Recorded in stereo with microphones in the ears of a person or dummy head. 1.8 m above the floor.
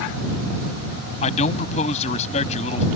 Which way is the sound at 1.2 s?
35° left (ahead or behind).